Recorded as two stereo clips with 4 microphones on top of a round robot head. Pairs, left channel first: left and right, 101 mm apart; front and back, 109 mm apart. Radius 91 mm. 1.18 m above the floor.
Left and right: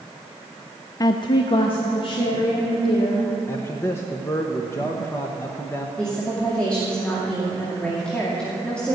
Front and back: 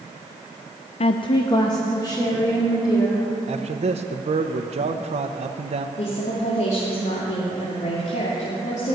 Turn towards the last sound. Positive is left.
turn(degrees=10)